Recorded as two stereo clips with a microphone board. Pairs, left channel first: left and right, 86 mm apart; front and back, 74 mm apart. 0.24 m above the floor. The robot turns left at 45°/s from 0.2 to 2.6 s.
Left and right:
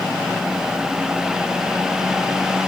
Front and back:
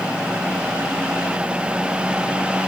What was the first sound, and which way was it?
Only background noise.